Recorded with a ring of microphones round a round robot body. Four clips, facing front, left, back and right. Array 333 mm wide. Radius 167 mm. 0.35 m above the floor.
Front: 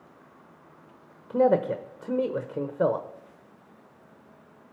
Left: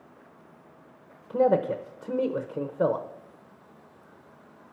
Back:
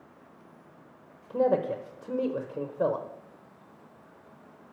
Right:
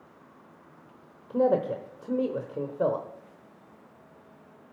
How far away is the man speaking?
About 0.8 m.